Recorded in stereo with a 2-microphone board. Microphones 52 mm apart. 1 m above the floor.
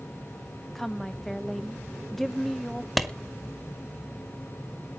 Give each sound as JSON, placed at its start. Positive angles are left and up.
{"t": 0.8, "sound": "a woman speaking", "side_deg": 0, "distance_m": 0.5}
{"t": 3.0, "sound": "a clap", "side_deg": 0, "distance_m": 1.5}